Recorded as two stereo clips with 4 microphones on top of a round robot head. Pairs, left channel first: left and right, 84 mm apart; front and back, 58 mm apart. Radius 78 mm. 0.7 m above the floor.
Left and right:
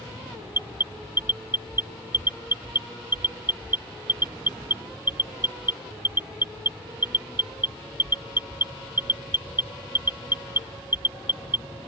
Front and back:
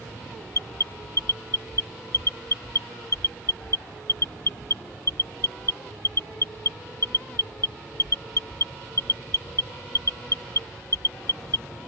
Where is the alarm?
25° right.